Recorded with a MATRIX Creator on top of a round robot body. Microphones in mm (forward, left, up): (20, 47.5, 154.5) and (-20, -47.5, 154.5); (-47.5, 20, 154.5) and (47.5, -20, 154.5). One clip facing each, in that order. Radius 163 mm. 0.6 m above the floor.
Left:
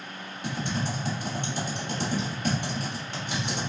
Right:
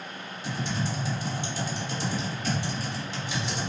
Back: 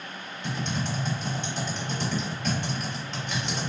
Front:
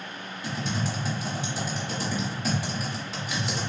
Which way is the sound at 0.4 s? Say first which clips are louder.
Left 1 dB, even; 60° left.